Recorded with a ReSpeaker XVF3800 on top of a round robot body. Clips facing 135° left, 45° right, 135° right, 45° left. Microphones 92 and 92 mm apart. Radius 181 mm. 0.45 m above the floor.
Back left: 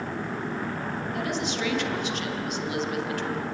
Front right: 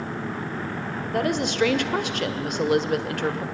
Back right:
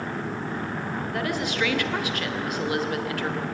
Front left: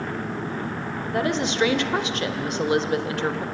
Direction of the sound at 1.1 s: 20° right.